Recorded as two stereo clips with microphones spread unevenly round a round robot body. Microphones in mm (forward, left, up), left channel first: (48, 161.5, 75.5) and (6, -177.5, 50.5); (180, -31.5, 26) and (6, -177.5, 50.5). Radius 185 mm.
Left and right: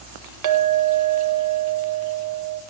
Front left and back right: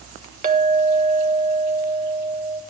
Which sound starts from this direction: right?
A clink, at 0.4 s.